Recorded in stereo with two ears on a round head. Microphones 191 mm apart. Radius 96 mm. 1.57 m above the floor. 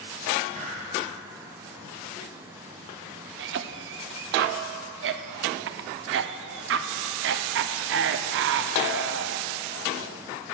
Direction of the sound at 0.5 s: 35° right (ahead or behind).